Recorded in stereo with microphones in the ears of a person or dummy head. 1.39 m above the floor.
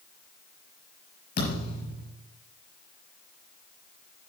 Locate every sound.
1.4 s a thud: 50° left (ahead or behind), 6 m